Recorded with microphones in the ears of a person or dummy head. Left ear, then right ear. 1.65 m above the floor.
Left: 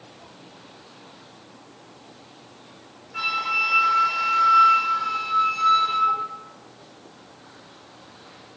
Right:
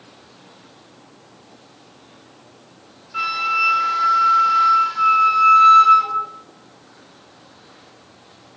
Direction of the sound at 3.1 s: 25° right (ahead or behind).